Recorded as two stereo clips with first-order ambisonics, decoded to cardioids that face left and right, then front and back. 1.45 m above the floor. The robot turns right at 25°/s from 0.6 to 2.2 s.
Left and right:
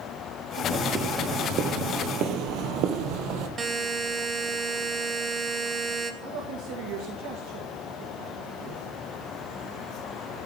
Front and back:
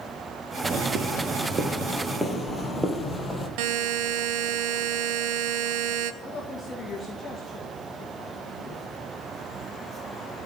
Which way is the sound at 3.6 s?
160° right.